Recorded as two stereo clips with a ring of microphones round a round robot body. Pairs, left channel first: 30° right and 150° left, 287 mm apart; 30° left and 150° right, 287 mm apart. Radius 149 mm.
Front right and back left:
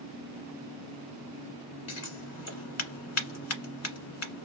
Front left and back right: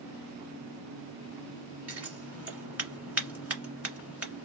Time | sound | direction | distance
1.9 | scissors | 65° right | 1.7 m